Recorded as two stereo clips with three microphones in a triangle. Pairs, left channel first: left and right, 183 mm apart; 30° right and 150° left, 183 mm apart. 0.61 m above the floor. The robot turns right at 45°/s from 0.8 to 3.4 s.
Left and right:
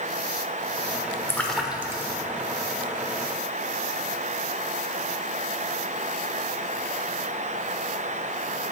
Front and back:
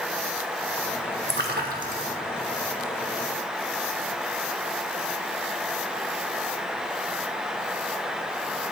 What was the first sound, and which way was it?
A splash, 165° left.